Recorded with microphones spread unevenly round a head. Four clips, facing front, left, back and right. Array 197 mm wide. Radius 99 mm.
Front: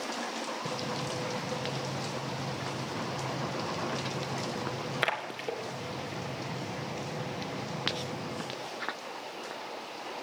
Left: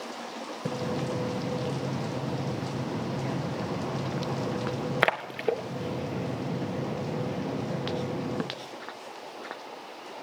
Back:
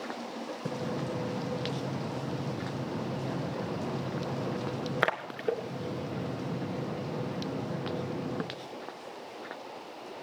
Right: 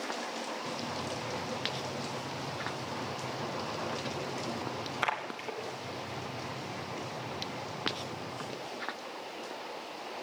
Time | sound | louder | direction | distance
0.7 | a splash | left 6 dB, back 5 dB | 105° left | 1.6 m